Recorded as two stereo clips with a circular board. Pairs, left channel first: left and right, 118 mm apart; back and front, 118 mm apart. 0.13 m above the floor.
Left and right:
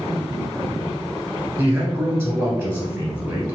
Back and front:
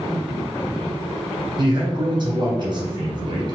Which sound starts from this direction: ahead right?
A man speaking, at 1.6 s.